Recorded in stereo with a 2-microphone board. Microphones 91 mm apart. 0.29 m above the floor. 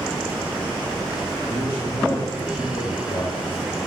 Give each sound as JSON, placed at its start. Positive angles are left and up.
{"t": 1.5, "sound": "a man speaking", "side_deg": 60, "distance_m": 5.0}